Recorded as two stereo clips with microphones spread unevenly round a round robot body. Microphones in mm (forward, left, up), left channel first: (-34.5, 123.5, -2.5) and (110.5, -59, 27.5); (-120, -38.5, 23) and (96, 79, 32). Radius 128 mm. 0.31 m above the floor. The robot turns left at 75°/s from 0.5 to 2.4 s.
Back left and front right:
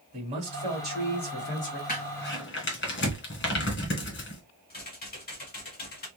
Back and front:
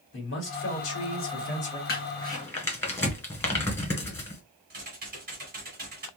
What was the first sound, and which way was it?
A man speaking, 120° right.